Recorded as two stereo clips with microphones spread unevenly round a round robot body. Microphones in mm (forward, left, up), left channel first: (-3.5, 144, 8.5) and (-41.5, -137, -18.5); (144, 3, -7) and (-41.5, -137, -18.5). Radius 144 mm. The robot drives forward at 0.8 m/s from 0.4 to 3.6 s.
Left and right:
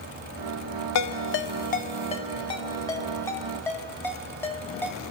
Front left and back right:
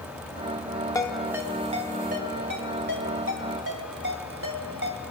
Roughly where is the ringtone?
Behind left.